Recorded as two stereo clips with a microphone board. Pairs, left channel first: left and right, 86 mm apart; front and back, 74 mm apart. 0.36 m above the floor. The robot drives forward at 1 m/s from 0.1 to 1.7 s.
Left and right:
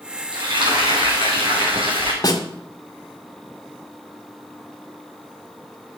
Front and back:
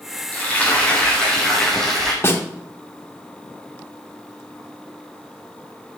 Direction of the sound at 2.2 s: 50° left.